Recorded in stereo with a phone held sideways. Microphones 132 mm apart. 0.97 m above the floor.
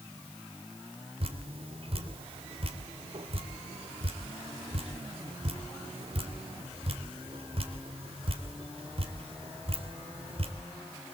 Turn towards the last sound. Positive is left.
turn(degrees=-50)  # may be behind; listen again after turning